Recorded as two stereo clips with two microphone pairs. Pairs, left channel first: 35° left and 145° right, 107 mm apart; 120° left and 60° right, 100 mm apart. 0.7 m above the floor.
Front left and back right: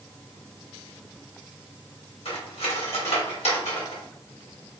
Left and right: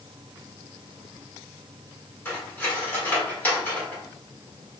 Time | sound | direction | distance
2.2 | cutlery clinking | 50° left | 1.2 m